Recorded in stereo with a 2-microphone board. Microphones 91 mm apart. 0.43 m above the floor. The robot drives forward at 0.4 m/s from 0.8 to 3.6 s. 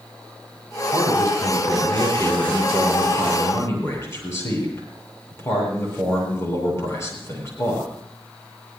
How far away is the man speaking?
About 9 m.